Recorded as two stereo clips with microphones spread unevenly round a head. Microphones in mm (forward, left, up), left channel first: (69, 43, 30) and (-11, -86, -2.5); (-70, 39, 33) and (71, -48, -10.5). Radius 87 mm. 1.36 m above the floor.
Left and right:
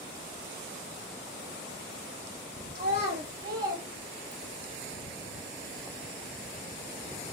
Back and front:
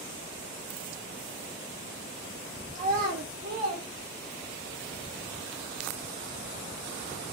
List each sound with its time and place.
2.8 s a child speaking: 80° right, 1.6 m; by 4.7 s 30° right, 3 m